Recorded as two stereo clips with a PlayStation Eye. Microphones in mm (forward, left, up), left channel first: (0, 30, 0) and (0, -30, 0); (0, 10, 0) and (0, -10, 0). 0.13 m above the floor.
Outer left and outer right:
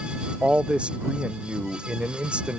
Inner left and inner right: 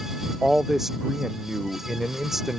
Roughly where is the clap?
No clap in this recording.